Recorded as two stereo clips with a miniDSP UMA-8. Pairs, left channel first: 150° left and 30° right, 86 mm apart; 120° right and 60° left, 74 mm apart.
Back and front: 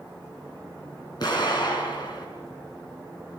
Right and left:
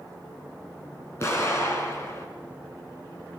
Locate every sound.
1.2 s an explosion: 175° right, 6.5 m